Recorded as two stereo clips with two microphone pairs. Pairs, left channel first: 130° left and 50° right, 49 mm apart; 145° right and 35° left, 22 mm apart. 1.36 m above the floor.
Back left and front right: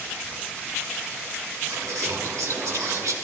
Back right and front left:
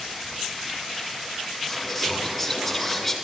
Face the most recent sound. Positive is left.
turn(degrees=-60)